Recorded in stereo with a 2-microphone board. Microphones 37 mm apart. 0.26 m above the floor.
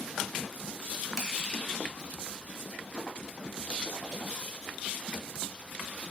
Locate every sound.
1.2 s crushing: 5° right (ahead or behind), 2.5 m